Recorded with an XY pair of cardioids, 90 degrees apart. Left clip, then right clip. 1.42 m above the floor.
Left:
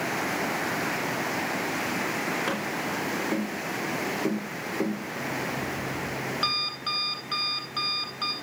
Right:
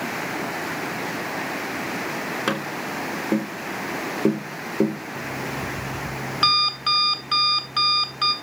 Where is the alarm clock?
70° right, 3 m.